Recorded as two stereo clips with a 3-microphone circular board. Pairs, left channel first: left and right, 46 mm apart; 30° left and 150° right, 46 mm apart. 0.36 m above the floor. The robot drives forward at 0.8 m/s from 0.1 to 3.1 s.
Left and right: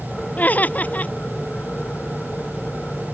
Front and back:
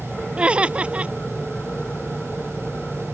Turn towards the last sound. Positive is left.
turn(degrees=150)